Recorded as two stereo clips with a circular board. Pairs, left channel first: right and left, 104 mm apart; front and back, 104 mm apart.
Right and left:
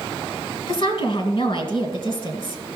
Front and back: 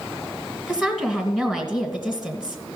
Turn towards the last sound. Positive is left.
turn(degrees=-100)